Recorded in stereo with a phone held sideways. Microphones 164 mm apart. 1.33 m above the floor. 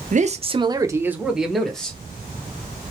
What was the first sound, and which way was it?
A man speaking, 55° right (ahead or behind).